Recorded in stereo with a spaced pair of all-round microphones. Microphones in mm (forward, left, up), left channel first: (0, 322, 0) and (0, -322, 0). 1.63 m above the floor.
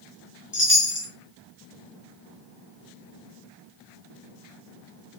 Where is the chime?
20° left (ahead or behind), 0.8 m.